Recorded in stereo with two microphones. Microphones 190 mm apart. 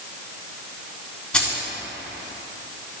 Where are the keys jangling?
5° left (ahead or behind), 2.5 m.